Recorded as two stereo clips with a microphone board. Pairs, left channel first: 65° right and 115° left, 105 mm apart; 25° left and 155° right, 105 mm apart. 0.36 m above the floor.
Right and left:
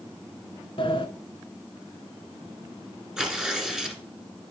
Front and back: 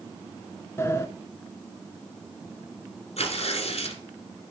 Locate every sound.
0.8 s a sliding door: 40° right, 0.7 m
3.2 s tearing paper: 30° left, 1.6 m